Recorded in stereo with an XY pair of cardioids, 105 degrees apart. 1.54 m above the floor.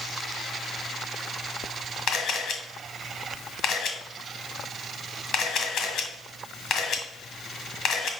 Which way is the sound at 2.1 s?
70° left.